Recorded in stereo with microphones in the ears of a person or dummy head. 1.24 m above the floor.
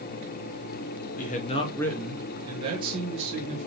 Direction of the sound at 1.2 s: 40° left (ahead or behind).